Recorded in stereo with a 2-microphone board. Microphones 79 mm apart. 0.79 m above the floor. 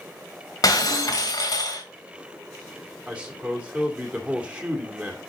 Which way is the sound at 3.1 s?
15° right (ahead or behind).